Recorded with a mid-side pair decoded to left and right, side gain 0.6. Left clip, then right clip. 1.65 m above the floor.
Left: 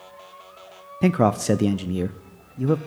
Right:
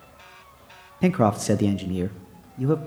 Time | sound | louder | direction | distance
1.0 | a man speaking | left 1 dB | 10° left | 0.5 m